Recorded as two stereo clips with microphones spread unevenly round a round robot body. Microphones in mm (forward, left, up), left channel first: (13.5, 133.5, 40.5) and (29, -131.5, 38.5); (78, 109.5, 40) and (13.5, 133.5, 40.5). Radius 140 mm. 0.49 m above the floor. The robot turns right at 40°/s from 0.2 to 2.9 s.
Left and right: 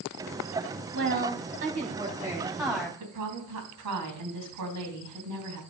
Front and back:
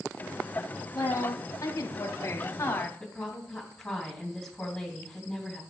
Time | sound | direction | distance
0.9 | a woman speaking | 65° right | 1.2 m
3.0 | a woman speaking | 110° right | 4 m